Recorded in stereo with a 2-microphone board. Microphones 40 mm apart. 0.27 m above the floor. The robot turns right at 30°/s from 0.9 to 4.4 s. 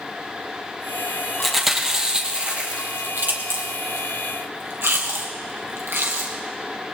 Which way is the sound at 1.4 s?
Centre (ahead or behind).